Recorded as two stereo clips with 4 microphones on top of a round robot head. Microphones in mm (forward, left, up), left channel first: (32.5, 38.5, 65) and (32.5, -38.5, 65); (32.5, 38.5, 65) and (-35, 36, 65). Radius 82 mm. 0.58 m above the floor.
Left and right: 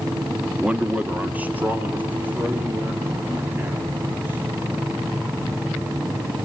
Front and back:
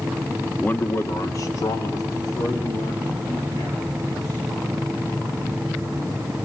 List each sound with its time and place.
0.6 s a man speaking: 30° right, 1.1 m; by 4.7 s 20° right, 7 m